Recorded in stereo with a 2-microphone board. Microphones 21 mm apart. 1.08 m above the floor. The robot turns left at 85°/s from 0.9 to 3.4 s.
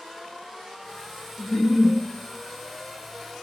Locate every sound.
1.4 s a giggle: 100° left, 1.1 m; by 1.9 s 50° left, 1.1 m